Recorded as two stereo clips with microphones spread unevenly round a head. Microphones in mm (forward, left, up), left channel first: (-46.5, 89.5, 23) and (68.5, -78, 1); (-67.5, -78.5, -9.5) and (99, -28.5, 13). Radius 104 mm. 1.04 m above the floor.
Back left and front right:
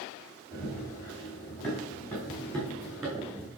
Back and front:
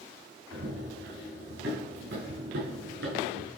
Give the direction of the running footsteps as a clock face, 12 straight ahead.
10 o'clock.